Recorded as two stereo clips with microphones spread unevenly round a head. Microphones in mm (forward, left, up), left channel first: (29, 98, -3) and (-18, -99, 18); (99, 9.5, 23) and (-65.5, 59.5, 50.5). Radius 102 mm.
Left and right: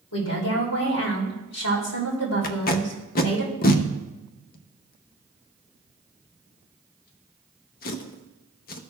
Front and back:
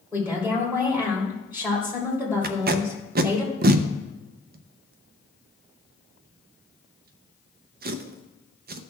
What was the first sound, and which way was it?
A woman speaking, 85° left.